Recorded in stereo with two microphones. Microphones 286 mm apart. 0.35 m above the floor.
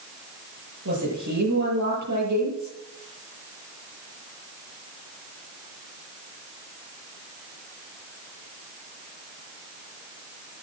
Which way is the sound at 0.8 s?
80° right.